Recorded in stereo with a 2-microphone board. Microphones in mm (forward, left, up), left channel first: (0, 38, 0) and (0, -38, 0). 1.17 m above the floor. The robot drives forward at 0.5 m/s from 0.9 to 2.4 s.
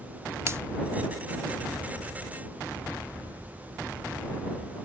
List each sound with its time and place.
0.5 s a finger snap: 35° right (ahead or behind)